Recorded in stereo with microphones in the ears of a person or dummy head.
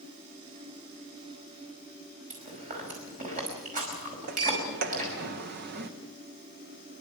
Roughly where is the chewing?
Right.